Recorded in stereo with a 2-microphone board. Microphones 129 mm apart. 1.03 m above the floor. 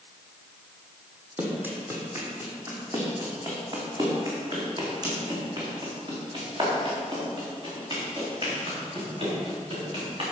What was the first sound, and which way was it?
Running footsteps, 15° right (ahead or behind).